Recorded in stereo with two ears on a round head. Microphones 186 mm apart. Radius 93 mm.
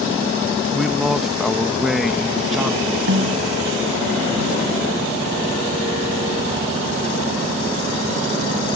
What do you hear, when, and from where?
0.7 s a man speaking: centre (ahead or behind)
3.1 s a snare drum: 75° right (ahead or behind)